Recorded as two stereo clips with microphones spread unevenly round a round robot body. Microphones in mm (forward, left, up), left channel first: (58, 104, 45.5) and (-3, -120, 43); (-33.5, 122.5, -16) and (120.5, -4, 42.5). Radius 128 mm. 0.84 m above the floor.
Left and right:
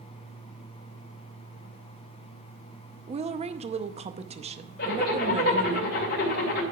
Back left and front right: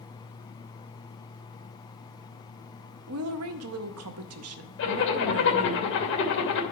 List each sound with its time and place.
3.1 s a woman speaking: 45° right, 0.7 m
4.8 s a zipper: 125° left, 2.5 m